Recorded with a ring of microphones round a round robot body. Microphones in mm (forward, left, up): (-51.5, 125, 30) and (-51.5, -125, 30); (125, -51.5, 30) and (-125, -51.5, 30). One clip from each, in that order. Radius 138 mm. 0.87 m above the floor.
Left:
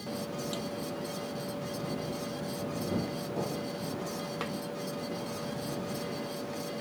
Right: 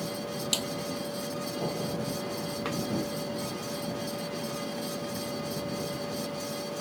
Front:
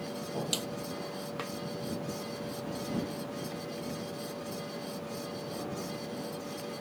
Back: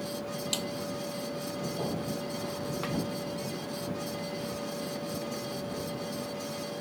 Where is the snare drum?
80° right.